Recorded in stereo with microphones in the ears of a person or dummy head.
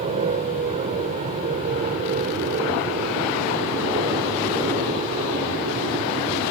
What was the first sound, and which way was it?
An aircraft, 35° right (ahead or behind).